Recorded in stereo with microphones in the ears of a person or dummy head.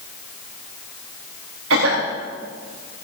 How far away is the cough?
About 3 m.